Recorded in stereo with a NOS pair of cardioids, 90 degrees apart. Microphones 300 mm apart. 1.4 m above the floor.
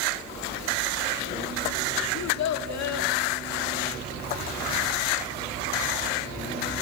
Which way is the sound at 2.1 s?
65° left.